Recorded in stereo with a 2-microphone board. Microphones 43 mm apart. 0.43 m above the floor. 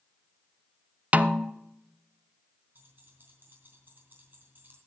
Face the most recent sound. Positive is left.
turn(degrees=-50)  # may be behind; listen again after turning